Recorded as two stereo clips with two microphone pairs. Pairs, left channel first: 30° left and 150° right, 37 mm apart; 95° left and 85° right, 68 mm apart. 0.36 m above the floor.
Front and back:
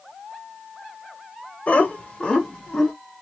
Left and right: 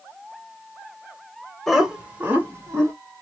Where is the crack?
I don't hear a crack.